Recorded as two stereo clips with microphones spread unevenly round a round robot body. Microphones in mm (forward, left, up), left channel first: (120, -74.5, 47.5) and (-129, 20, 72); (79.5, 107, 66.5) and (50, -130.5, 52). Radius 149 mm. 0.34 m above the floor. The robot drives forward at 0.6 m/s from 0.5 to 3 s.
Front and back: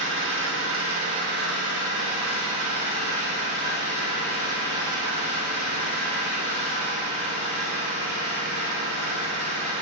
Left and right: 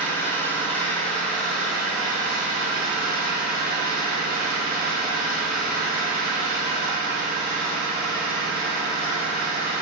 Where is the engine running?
165° left, 1.2 m; by 9.8 s 175° left, 2.5 m.